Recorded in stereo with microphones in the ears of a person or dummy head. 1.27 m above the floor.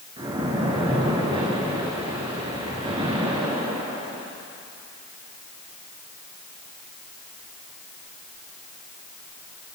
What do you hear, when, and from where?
0.2 s a splash: 25° right (ahead or behind), 3 m